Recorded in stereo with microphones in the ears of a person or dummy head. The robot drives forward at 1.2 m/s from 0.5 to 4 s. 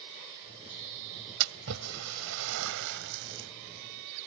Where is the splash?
75° right (ahead or behind); by 3.5 s 60° right (ahead or behind).